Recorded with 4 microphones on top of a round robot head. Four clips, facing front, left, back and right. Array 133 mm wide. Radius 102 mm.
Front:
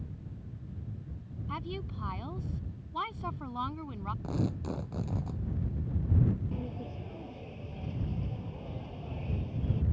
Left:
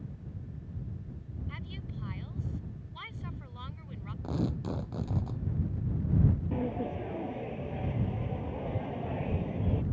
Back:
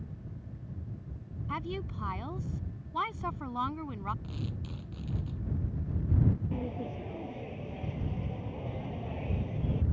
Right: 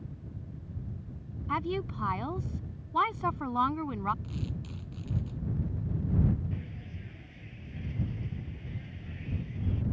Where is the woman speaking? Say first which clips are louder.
Right 17 dB, back 2 dB; 95° right.